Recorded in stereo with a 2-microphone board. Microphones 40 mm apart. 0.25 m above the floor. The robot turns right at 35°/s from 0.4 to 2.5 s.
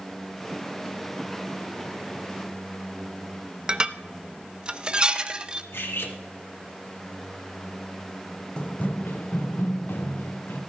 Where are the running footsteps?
25° left (ahead or behind), 0.8 m; by 10.6 s 80° left, 3 m.